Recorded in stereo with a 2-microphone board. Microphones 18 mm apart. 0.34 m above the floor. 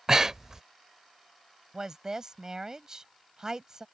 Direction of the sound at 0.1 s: 35° right (ahead or behind).